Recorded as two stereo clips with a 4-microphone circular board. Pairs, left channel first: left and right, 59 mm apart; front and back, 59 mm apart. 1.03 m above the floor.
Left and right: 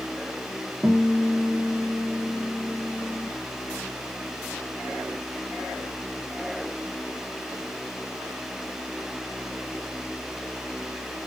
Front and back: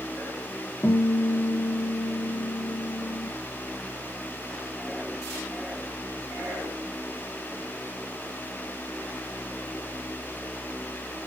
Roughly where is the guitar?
Ahead right.